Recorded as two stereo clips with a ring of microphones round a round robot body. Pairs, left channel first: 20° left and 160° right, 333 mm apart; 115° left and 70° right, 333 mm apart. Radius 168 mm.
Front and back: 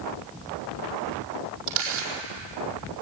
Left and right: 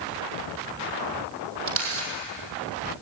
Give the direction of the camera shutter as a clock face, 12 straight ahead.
3 o'clock.